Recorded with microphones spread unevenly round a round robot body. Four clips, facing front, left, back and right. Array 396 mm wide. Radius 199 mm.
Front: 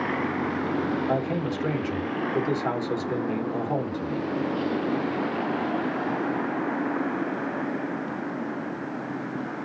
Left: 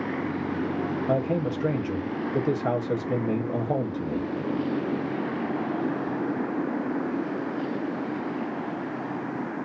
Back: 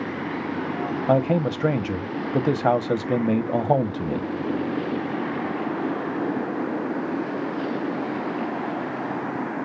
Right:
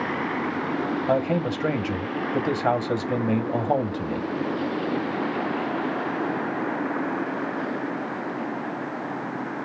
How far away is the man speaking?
About 1.4 m.